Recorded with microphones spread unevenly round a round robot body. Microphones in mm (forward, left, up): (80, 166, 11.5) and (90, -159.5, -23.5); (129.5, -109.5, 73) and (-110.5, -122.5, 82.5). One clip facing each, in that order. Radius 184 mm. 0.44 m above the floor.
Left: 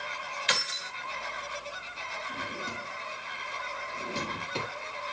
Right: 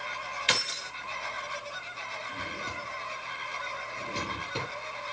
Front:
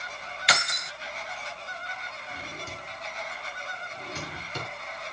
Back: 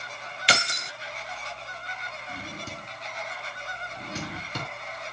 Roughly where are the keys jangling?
Behind right.